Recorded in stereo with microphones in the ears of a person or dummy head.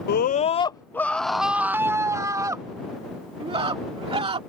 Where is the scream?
55° left (ahead or behind); by 4.4 s 30° right (ahead or behind).